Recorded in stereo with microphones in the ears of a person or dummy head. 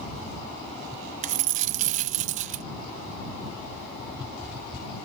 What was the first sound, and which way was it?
A dropped coin, 40° right (ahead or behind).